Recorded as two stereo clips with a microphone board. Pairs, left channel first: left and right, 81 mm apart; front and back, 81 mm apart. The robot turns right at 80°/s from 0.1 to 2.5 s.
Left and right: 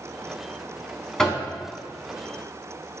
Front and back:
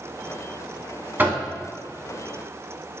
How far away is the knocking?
About 0.7 m.